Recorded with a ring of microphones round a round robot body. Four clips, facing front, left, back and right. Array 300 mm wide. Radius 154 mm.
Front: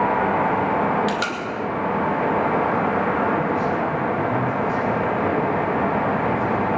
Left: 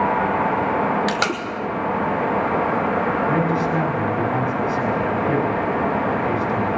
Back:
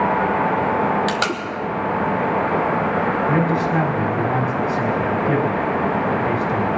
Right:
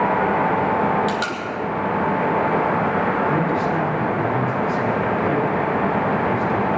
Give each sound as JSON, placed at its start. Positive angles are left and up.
{"t": 1.1, "sound": "tape being pulled", "azimuth_deg": 130, "distance_m": 2.0}
{"t": 3.3, "sound": "a man speaking", "azimuth_deg": 170, "distance_m": 3.0}